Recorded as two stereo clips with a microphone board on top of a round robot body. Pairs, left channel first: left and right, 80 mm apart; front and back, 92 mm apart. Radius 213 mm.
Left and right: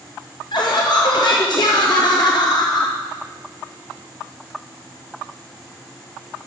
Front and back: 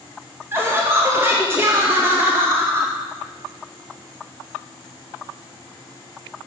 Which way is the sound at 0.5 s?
115° left.